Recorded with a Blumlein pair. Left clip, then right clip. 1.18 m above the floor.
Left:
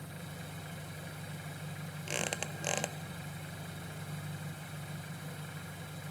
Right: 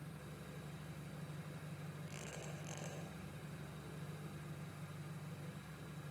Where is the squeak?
40° left, 1.2 m.